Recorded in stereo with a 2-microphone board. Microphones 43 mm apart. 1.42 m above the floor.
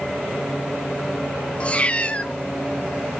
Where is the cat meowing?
30° left (ahead or behind), 0.9 m.